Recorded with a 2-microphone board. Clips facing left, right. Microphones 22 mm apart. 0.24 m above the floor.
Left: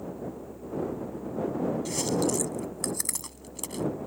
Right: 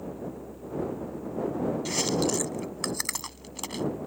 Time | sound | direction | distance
1.9 | chewing | 30° right (ahead or behind) | ?